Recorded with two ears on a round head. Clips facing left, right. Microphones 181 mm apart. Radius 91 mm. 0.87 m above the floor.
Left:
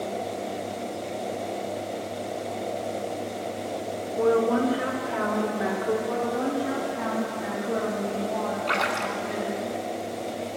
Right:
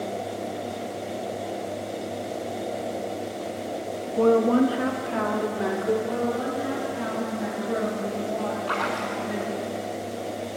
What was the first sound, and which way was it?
A woman speaking, 50° right (ahead or behind).